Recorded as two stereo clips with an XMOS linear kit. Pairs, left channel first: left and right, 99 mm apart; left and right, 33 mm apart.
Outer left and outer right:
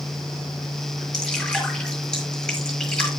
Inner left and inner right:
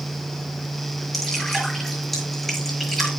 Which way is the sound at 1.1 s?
10° left (ahead or behind).